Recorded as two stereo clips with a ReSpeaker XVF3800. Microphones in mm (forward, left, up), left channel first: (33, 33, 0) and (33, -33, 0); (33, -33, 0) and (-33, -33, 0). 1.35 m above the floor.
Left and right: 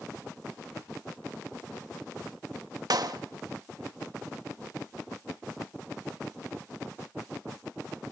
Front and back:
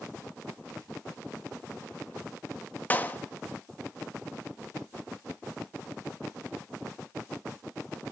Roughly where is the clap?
Ahead right.